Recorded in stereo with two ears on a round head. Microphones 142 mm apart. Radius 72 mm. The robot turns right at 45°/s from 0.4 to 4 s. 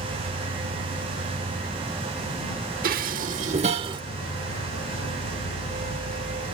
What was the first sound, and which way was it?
An insect, 95° right.